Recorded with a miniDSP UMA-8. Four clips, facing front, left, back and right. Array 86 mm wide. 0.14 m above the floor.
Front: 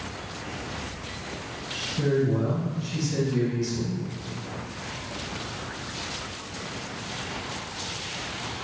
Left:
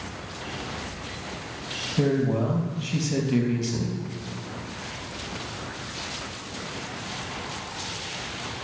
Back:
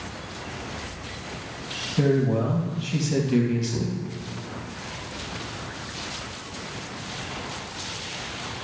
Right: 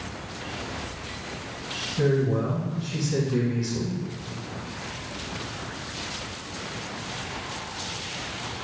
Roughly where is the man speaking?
Behind left.